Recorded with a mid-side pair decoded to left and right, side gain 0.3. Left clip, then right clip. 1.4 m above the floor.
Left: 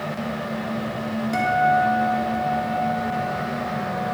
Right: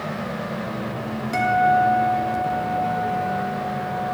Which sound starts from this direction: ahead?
A guitar, at 1.3 s.